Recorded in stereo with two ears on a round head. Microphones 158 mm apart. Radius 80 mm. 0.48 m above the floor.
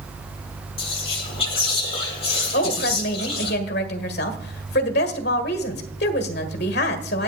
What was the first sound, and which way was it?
Whispering, 35° left (ahead or behind).